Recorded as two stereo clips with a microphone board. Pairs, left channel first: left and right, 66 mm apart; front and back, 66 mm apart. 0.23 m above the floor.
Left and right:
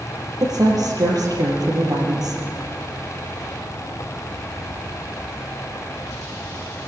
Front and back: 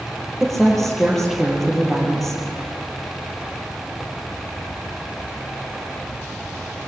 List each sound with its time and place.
0.4 s a woman speaking: 85° right, 6.5 m